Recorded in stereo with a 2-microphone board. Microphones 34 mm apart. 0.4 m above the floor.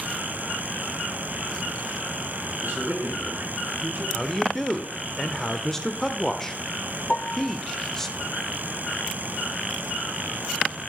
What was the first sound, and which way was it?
A man speaking, 75° right (ahead or behind).